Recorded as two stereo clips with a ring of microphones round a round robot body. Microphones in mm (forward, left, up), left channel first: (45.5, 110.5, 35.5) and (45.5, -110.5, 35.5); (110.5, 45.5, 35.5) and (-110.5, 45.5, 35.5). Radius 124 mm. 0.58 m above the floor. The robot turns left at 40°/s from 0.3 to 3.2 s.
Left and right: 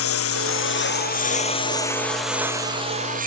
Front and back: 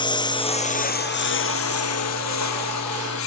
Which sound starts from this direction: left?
A lawn mower, at 0.0 s.